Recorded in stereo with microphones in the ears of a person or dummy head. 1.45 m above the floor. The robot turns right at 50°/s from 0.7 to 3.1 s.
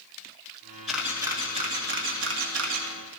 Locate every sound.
0.9 s a camera shutter: centre (ahead or behind), 2.5 m; by 2.9 s 80° right, 2.5 m